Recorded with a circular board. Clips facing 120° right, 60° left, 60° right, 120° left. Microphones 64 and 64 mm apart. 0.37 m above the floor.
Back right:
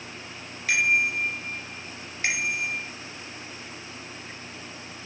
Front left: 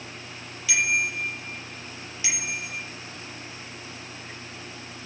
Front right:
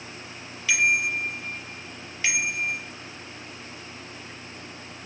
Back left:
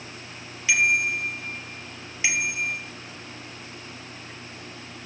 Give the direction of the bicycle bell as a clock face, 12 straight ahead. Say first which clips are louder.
Back right 2 dB, back left 1 dB; 5 o'clock.